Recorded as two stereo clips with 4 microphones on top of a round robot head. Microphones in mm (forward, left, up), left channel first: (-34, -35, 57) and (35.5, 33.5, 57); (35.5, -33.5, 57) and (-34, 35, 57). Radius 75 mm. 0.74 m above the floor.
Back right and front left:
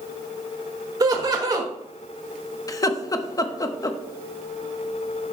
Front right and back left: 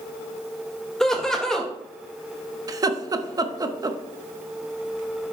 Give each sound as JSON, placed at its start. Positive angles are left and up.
{"t": 1.0, "sound": "laughter", "azimuth_deg": 35, "distance_m": 0.9}
{"t": 2.7, "sound": "laughter", "azimuth_deg": 180, "distance_m": 1.0}